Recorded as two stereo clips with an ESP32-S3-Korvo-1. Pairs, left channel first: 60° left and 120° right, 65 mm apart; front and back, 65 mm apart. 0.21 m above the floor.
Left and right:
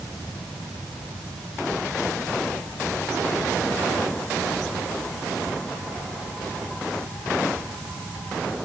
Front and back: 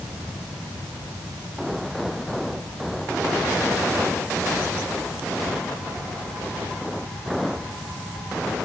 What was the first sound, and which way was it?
Only background noise.